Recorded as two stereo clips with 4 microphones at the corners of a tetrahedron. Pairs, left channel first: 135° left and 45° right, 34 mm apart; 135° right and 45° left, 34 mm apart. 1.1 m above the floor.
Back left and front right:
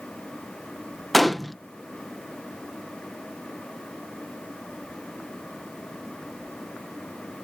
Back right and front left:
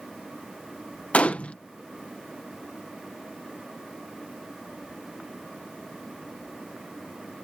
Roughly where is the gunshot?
Behind right.